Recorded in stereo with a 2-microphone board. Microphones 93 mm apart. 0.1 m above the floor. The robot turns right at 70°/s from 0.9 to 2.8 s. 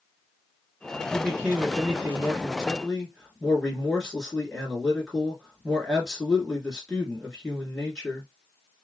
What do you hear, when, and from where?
1.1 s a man speaking: 20° right (ahead or behind), 1.6 m; by 8.3 s 5° left (ahead or behind), 1.6 m